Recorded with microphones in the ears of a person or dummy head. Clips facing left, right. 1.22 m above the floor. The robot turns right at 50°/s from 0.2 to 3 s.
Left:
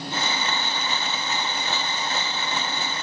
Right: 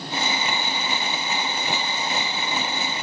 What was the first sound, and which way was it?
Only background noise.